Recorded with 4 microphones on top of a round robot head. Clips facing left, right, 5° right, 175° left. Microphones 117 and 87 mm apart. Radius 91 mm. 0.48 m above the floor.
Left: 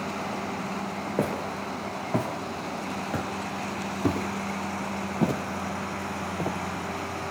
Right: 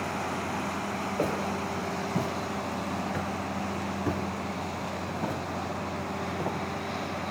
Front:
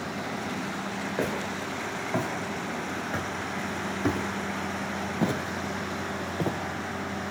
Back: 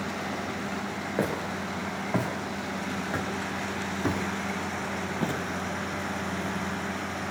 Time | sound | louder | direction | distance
1.2 | footsteps | left 1 dB, back 2 dB | 100° left | 3 m